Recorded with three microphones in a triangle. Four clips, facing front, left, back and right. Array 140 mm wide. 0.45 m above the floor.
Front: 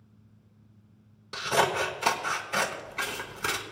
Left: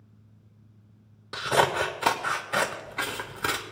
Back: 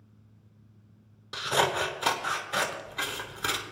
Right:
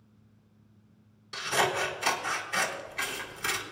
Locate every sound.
1.3 s scissors: 80° left, 0.9 m